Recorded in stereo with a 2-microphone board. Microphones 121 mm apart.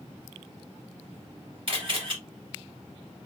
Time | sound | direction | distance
1.7 | a camera shutter | 45° right (ahead or behind) | 2.5 m